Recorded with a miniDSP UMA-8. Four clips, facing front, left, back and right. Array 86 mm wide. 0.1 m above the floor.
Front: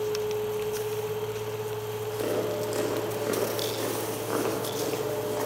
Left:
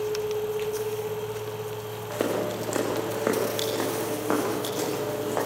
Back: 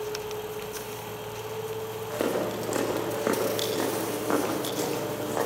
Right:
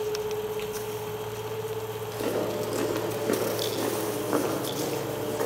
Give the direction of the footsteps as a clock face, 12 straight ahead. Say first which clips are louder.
Left 2 dB, back 1 dB; 8 o'clock.